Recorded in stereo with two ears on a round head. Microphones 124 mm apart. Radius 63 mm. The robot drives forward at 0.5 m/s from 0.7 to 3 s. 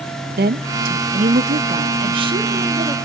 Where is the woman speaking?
80° right, 0.7 m; by 3.0 s 30° right (ahead or behind), 1.4 m.